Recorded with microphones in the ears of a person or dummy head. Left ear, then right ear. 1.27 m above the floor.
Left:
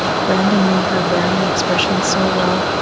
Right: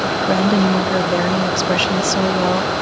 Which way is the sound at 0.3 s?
5° right (ahead or behind).